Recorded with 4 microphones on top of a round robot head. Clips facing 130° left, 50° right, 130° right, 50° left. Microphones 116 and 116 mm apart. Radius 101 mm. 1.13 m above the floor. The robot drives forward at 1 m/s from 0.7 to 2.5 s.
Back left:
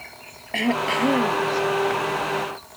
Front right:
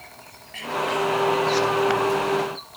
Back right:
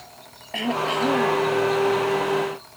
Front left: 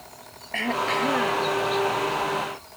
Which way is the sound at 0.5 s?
155° left.